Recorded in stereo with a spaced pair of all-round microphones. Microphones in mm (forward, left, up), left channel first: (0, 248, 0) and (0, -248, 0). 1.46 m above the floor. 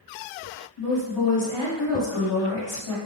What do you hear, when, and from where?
0.8 s a woman speaking: 75° left (ahead or behind), 1.9 m